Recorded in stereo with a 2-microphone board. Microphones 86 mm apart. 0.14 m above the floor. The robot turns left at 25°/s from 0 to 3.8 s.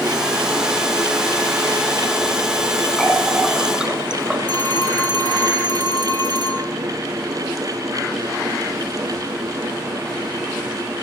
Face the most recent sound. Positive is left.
turn(degrees=-65)  # may be behind; listen again after turning